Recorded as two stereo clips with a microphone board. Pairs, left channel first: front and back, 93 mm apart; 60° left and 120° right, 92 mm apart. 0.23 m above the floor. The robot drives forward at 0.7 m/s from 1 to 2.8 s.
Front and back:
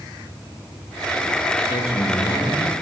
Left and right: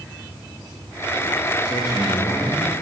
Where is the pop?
I don't hear a pop.